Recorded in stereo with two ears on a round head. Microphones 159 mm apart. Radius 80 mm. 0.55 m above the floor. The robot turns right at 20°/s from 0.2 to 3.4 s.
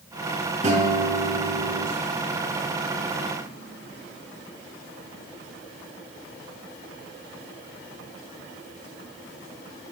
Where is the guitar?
45° right (ahead or behind), 6 m; by 1.9 s 65° right (ahead or behind), 6 m.